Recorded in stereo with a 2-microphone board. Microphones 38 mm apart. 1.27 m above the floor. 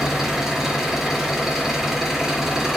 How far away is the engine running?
About 3 m.